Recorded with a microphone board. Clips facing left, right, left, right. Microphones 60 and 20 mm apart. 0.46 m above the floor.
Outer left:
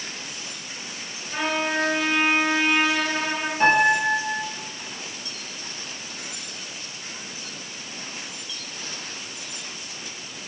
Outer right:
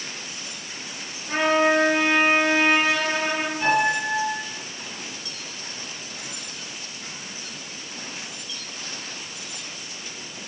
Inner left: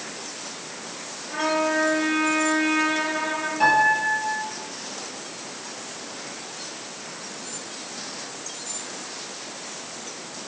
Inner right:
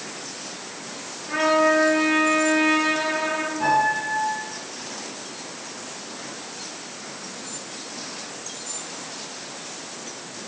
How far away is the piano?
About 7 m.